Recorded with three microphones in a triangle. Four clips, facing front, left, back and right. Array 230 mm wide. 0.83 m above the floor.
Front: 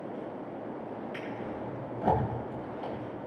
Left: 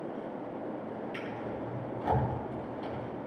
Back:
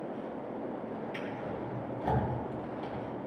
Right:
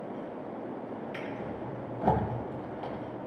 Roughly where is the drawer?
Ahead right.